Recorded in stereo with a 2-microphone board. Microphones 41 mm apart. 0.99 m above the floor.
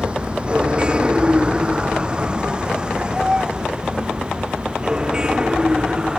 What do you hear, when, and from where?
0.0 s a vehicle: 25° right (ahead or behind); by 6.2 s 20° right (ahead or behind)